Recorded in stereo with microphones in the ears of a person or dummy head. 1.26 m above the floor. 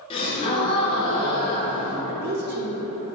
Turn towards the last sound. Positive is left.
turn(degrees=-45)  # may be behind; listen again after turning